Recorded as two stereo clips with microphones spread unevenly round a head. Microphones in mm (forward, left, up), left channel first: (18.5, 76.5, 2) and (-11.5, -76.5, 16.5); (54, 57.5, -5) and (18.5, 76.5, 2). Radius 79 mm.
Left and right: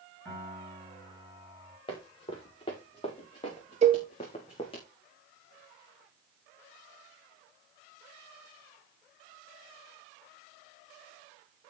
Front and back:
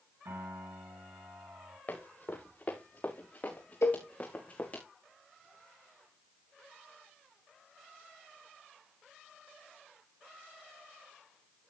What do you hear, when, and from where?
0.2 s a piano: 160° left, 8 m
1.9 s running footsteps: 15° left, 6 m; by 4.8 s 20° left, 4 m
3.8 s a cowbell: 60° right, 1.5 m